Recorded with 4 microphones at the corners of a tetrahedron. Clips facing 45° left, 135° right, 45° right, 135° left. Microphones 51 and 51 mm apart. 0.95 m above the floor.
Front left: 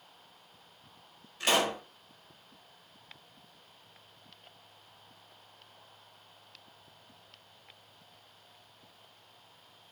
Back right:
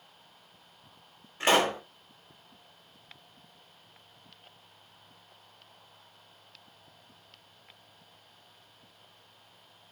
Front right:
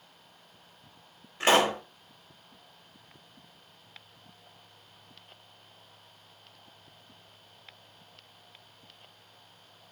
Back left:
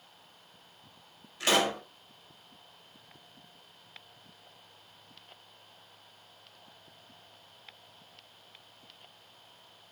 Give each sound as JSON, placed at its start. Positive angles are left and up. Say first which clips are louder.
{"t": 1.4, "sound": "a pop", "louder": "back right 4 dB, front right 4 dB", "azimuth_deg": -90, "distance_m": 0.9}